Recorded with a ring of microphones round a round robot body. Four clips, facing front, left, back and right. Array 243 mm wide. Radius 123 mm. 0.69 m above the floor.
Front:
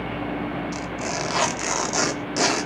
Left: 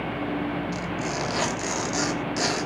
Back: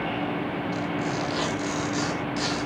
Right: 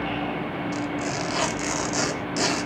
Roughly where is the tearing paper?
Ahead.